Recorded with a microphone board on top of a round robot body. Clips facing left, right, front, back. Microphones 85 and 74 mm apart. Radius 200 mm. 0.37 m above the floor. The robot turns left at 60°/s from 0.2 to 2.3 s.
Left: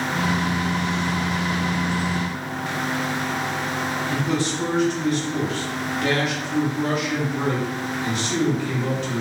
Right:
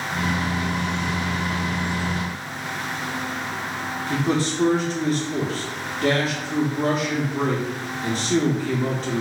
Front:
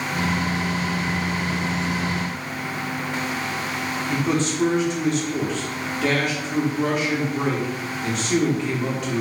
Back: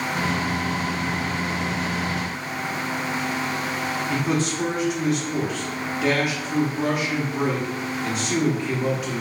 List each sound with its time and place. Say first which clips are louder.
4.1 s a man speaking: right 4 dB, front 2 dB; 95° right, 0.8 m